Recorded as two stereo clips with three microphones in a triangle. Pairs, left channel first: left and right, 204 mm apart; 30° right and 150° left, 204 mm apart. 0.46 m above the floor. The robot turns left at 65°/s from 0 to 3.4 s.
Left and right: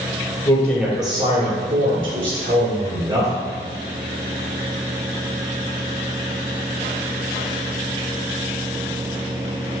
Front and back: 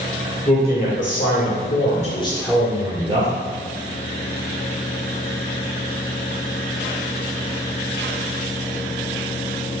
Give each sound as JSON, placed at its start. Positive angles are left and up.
{"t": 0.5, "sound": "a man speaking", "azimuth_deg": 30, "distance_m": 1.6}